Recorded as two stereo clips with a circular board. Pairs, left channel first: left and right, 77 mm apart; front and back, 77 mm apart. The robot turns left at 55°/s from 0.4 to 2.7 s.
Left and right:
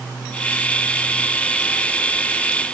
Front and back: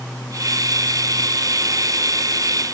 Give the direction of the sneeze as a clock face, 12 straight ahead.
No sneeze in this recording.